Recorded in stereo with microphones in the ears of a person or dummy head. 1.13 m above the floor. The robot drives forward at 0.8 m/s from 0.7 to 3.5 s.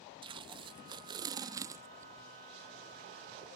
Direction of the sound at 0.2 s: 25° right (ahead or behind).